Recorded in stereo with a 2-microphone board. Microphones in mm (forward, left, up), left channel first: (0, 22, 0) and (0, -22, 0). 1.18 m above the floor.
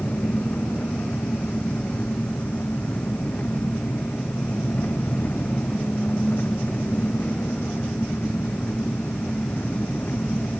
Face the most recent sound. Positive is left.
turn(degrees=40)  # may be behind; listen again after turning